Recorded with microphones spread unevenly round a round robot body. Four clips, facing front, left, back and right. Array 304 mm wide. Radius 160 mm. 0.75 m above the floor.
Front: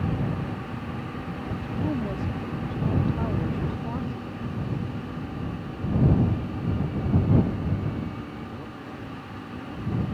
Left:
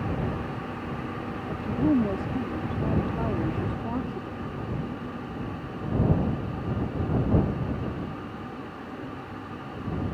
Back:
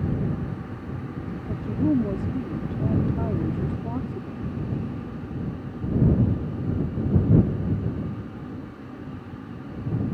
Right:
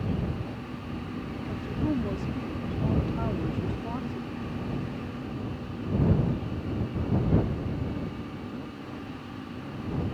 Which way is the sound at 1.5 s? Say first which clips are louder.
Left 6 dB, back 7 dB; 150° left.